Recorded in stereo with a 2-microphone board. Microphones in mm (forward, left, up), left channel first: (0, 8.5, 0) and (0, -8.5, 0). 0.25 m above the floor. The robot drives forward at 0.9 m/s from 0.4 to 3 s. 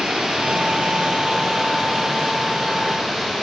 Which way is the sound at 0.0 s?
65° right (ahead or behind).